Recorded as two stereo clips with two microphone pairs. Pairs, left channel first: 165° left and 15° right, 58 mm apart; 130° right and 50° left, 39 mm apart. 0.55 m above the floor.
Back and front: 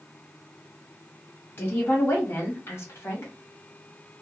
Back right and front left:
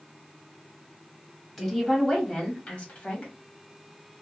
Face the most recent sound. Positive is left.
turn(degrees=-170)